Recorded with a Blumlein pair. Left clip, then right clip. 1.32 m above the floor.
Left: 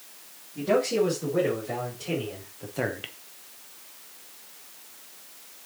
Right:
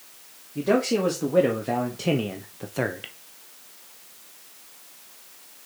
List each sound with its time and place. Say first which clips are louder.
0.6 s a man speaking: right 1 dB; 65° right, 2.5 m; by 3.1 s 5° left, 0.8 m